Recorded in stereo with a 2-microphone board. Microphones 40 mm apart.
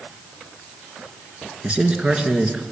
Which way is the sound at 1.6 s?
25° right (ahead or behind).